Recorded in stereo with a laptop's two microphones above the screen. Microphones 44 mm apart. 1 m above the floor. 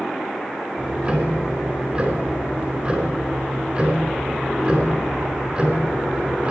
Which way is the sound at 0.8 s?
30° right (ahead or behind).